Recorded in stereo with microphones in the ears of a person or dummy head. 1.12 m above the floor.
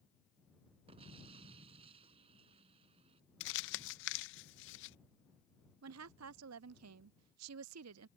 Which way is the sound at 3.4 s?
65° left (ahead or behind).